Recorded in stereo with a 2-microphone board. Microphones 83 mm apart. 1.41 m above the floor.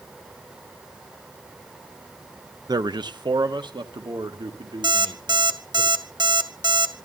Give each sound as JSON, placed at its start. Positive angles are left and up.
{"t": 2.7, "sound": "a man speaking", "side_deg": -55, "distance_m": 0.9}
{"t": 4.8, "sound": "an alarm clock", "side_deg": -65, "distance_m": 2.0}